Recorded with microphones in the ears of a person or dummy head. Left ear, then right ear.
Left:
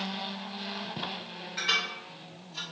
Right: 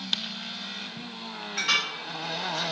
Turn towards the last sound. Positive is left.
turn(degrees=0)  # may be behind; listen again after turning